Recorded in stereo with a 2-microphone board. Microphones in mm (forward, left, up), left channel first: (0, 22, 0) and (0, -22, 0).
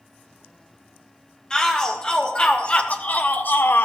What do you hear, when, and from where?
1.5 s a shout: 15° left (ahead or behind), 1.9 m; by 3.9 s 55° left (ahead or behind), 0.7 m